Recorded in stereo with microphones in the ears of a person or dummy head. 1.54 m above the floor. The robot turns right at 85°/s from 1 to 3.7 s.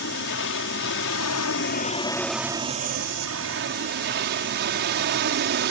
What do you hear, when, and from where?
0.0 s an aircraft: 65° left; by 5.7 s 65° right